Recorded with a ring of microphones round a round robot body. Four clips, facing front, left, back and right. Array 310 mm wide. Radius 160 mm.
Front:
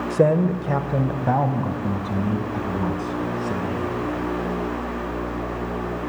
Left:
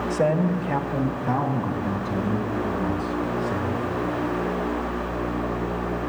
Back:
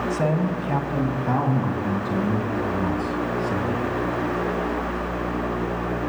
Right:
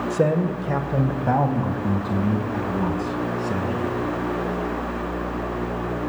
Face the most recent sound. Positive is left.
turn(degrees=-60)